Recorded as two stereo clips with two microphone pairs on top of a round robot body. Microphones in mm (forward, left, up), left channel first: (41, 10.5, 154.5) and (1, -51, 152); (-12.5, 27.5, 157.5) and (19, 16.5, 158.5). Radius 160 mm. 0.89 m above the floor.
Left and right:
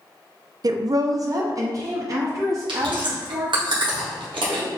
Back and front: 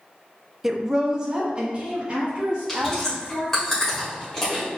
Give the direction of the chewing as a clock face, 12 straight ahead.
4 o'clock.